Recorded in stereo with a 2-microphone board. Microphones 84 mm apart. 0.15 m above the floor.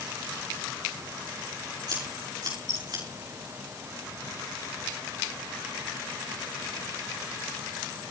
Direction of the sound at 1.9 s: 55° right (ahead or behind).